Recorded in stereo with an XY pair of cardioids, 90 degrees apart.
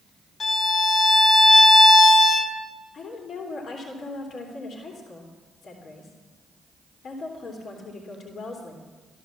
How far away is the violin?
About 2 m.